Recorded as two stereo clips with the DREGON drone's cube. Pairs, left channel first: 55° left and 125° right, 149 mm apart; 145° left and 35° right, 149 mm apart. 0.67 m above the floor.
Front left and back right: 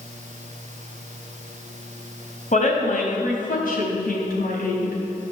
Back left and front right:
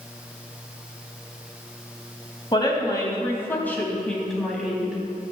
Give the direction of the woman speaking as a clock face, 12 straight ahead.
9 o'clock.